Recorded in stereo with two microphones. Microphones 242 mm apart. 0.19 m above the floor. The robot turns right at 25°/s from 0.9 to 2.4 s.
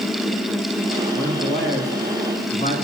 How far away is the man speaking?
About 1.7 m.